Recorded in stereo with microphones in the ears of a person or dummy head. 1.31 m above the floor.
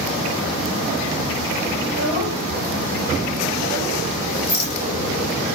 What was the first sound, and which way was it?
A child speaking, 40° right (ahead or behind).